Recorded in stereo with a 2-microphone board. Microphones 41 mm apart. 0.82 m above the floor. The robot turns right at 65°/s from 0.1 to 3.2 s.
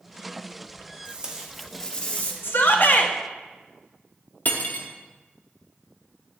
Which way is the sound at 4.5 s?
50° left (ahead or behind).